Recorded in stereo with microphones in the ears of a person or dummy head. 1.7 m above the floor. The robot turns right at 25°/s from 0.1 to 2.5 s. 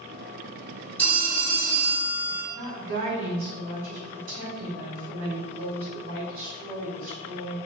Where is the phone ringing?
15° left, 1.5 m; by 2.4 s 50° left, 1.5 m.